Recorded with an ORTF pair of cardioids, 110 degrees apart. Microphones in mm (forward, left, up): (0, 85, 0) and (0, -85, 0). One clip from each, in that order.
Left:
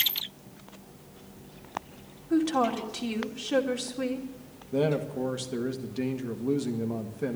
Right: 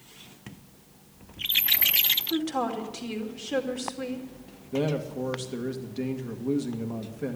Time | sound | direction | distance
2.3 | a woman speaking | 15° left | 2.5 m
4.7 | a man speaking | 10° left | 1.7 m